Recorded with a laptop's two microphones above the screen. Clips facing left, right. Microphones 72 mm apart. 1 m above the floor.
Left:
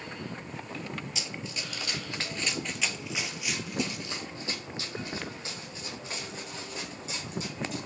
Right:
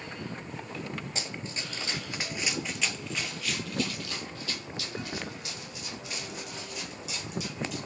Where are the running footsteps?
40° right (ahead or behind), 1.3 m; by 7.9 s 35° left (ahead or behind), 4.5 m.